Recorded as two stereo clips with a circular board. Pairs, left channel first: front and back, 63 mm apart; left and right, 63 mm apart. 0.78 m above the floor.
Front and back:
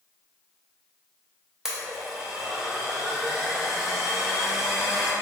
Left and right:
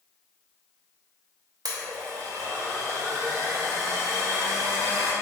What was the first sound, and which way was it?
A blender, 100° right.